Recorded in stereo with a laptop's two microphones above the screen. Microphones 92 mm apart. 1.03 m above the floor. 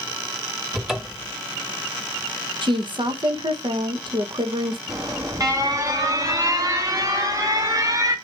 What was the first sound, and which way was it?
A cupboard door, centre (ahead or behind).